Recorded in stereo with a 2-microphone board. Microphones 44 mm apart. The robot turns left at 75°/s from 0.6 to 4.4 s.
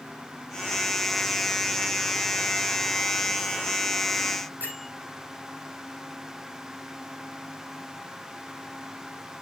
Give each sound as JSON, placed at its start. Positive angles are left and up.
{"t": 4.6, "sound": "a bell", "side_deg": -45, "distance_m": 5.0}